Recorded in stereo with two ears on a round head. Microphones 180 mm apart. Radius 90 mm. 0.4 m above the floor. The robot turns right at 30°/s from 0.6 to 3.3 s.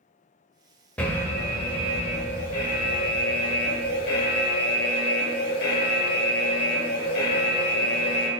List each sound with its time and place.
1.0 s an alarm: 10° left, 0.8 m; by 8.3 s 80° left, 0.8 m